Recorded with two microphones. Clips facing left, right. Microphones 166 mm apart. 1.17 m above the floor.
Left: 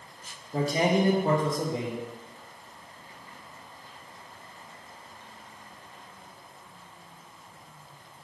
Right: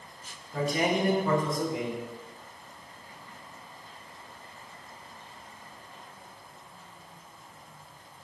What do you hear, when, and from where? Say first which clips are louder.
0.5 s a man speaking: left 3 dB; 30° left (ahead or behind), 0.6 m